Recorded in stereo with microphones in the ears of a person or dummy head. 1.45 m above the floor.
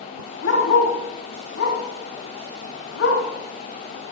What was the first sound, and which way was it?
A dog barking, 70° left (ahead or behind).